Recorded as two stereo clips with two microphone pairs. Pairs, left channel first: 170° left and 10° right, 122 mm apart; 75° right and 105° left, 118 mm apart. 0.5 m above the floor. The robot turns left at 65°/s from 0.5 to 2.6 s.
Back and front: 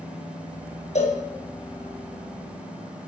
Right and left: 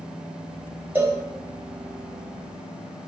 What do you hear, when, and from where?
0.9 s a cowbell: straight behind, 3 m; by 1.2 s 165° left, 3 m